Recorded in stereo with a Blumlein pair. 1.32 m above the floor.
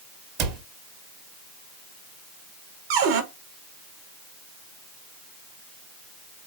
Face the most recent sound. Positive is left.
turn(degrees=-50)